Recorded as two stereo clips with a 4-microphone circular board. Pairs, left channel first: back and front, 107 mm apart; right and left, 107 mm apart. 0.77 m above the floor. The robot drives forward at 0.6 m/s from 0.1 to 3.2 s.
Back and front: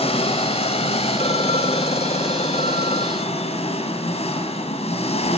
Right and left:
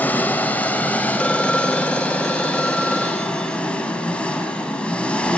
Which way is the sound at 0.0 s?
165° right.